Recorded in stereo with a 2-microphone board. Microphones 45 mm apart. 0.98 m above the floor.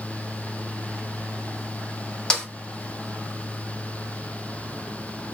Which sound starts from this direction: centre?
A snare drum, at 2.3 s.